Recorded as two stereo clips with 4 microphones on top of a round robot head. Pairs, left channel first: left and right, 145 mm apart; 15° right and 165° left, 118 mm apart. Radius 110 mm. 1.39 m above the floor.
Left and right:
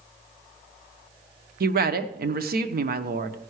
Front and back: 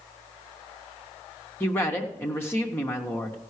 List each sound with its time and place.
1.6 s a woman speaking: 90° right, 1.0 m